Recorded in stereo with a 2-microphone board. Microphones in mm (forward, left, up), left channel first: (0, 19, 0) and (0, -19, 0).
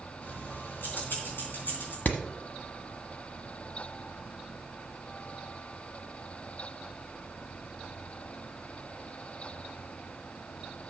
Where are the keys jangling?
70° left (ahead or behind), 4 m; by 1.9 s 60° left (ahead or behind), 3.5 m.